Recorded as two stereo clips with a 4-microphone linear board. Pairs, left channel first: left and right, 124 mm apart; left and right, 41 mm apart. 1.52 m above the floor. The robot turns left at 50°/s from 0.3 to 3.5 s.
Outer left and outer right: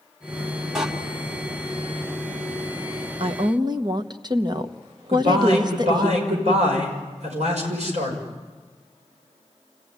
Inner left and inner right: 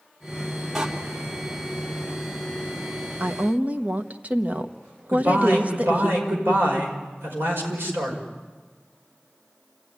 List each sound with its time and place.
0.8 s a door slam: 5° right (ahead or behind), 2 m; by 0.9 s 10° right (ahead or behind), 2 m
3.2 s a woman speaking: 50° right (ahead or behind), 1.2 m; by 6.1 s 35° right (ahead or behind), 1.2 m
5.1 s a man speaking: 70° right (ahead or behind), 6 m